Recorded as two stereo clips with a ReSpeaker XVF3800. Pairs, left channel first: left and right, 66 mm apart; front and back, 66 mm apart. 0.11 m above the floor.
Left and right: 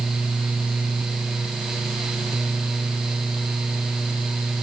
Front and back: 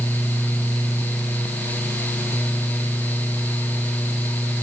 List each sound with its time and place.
Only background noise.